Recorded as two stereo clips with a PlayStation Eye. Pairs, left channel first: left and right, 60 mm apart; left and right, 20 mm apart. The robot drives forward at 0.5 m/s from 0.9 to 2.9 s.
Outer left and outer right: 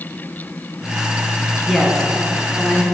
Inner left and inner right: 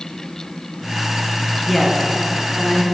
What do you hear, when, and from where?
1.7 s a woman speaking: 10° left (ahead or behind), 2.0 m